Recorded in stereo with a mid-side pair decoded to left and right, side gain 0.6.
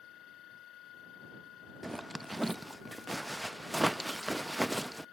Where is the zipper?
10° right.